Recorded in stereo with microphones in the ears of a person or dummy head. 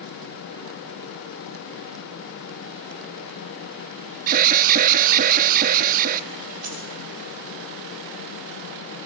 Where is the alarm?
45° right (ahead or behind), 0.8 m.